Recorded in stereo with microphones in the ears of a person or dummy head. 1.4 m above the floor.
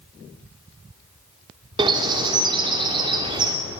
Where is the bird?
25° right (ahead or behind), 3 m.